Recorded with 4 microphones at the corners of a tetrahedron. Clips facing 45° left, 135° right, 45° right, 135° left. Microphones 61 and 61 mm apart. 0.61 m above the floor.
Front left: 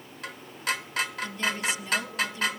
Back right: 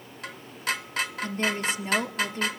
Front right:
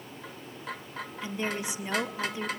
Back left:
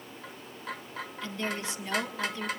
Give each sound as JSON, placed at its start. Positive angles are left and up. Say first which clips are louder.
{"t": 1.2, "sound": "a woman speaking", "louder": "back right 4 dB, front right 2 dB", "azimuth_deg": -110, "distance_m": 1.6}